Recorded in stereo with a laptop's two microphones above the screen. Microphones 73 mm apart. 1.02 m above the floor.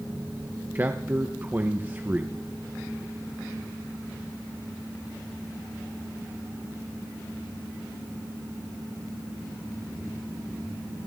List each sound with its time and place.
0.8 s a man speaking: 25° right (ahead or behind), 0.7 m